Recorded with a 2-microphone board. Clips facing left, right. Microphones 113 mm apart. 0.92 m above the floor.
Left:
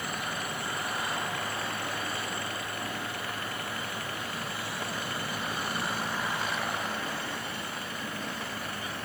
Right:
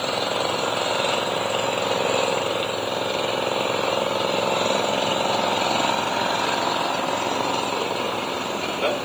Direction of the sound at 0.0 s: 75° right (ahead or behind).